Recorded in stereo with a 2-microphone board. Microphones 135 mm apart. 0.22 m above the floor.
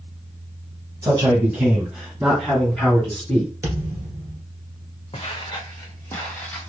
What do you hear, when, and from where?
1.0 s a man speaking: 25° right (ahead or behind), 1.5 m; by 3.5 s 10° left (ahead or behind), 2.5 m
3.6 s a thud: 25° right (ahead or behind), 1.5 m
5.1 s footsteps: 40° left (ahead or behind), 1.1 m; by 6.7 s 10° left (ahead or behind), 1.5 m